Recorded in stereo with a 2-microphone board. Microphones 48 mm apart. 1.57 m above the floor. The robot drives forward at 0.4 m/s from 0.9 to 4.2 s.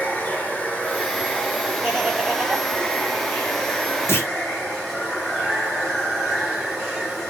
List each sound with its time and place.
0.0 s running water: 25° left (ahead or behind), 0.8 m; by 7.3 s 15° left (ahead or behind), 1.3 m
1.8 s laughter: 10° right (ahead or behind), 1.0 m; by 2.7 s 5° right (ahead or behind), 1.3 m
4.1 s a clunk: 60° left (ahead or behind), 0.7 m